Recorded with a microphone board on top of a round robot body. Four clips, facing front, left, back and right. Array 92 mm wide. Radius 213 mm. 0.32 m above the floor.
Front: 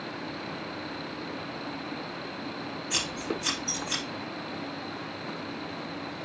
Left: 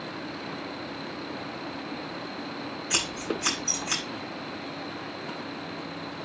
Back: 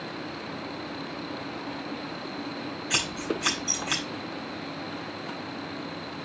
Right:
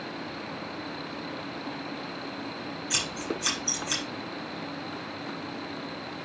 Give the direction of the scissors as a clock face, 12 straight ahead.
7 o'clock.